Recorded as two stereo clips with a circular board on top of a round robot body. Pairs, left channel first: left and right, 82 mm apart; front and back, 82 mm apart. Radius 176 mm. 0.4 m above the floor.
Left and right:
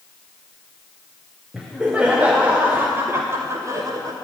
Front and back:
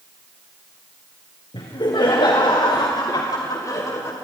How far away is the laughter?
About 2.5 m.